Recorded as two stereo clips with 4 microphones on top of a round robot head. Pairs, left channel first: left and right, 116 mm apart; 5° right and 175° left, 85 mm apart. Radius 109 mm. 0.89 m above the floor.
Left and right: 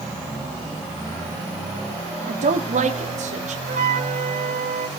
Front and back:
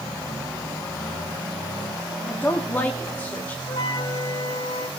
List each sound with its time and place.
2.3 s a woman speaking: 80° right, 2.5 m
3.7 s a flute: 65° right, 2 m